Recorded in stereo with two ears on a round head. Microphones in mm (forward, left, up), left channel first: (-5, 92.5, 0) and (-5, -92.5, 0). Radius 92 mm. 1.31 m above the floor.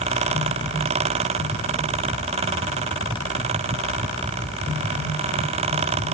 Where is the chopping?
No chopping in this recording.